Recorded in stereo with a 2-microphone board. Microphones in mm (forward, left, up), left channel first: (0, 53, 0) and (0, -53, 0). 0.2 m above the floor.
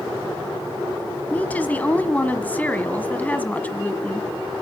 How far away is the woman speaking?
About 1.6 m.